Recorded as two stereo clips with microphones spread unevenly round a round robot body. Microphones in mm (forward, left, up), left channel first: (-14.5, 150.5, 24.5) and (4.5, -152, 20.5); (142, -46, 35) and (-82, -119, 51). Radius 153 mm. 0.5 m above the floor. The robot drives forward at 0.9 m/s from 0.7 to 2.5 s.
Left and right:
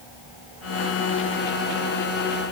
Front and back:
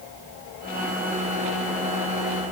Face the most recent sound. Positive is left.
No sound to turn to.